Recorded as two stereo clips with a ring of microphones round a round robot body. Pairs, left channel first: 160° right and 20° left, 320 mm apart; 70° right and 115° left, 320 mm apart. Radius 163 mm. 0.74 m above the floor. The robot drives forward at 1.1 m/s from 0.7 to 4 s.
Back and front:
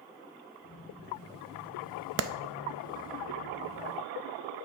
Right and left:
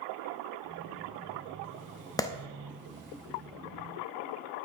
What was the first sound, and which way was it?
A clap, 10° left.